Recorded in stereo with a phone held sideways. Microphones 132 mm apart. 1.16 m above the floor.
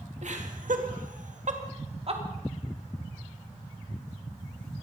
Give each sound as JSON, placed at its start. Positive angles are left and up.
{"t": 0.2, "sound": "laughter", "side_deg": -65, "distance_m": 1.9}